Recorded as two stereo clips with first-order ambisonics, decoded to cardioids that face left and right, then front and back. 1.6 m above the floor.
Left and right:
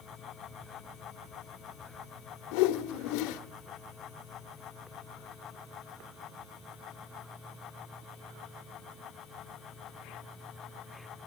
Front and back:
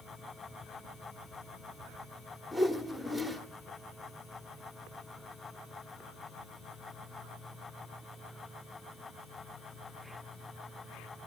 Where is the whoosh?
85° left, 1.2 m.